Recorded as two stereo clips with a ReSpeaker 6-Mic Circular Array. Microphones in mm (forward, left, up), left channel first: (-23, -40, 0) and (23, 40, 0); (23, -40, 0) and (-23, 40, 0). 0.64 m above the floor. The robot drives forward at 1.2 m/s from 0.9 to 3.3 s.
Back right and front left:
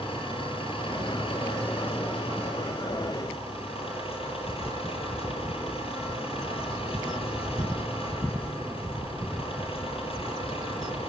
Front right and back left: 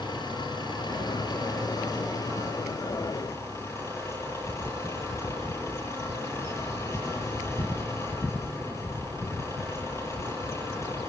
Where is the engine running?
100° right, 7.5 m; by 11.1 s 120° right, 8.5 m.